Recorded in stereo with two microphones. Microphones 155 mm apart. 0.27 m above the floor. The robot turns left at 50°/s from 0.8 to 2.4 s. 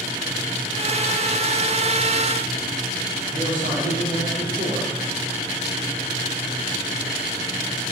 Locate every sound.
3.3 s a man speaking: 60° right (ahead or behind), 4.5 m